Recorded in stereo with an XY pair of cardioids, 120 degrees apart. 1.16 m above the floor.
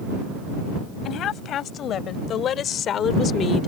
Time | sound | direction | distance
1.1 | a woman speaking | 60° left | ?